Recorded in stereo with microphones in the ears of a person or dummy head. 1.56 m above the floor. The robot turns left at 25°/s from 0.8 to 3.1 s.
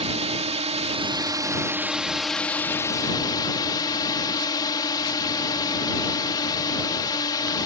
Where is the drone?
145° right; by 7.7 s 155° left.